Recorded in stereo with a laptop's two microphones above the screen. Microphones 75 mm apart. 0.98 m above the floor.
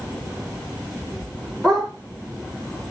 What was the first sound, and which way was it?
A dog barking, 5° left (ahead or behind).